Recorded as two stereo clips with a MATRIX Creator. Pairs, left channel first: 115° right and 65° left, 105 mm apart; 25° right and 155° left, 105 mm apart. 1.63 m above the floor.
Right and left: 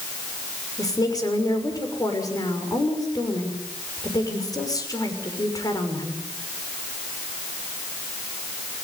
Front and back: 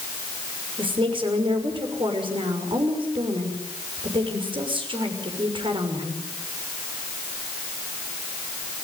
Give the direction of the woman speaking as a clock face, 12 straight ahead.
6 o'clock.